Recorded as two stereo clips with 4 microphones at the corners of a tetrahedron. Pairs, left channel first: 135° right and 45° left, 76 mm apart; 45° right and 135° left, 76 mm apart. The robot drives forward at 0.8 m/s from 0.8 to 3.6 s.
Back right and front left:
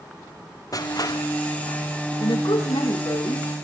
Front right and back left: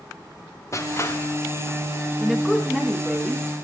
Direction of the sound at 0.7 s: 95° right.